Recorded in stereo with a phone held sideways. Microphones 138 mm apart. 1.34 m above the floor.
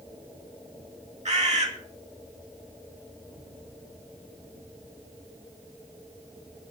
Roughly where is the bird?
Right.